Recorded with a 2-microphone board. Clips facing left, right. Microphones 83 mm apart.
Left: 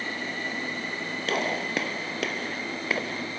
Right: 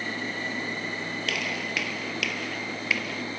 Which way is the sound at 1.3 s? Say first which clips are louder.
Left 6 dB; 35° left (ahead or behind).